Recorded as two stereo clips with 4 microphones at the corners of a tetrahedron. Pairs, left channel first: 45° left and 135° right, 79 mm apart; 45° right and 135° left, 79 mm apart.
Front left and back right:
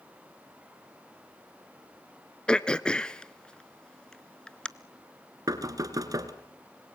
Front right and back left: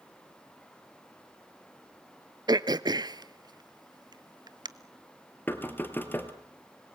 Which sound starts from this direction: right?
Knocking, at 5.5 s.